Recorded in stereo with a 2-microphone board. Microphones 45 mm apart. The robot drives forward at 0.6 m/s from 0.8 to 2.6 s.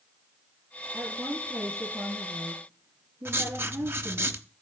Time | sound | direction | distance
0.9 | a woman speaking | 70° right (ahead or behind) | 7.5 m
3.2 | writing | 60° right (ahead or behind) | 0.9 m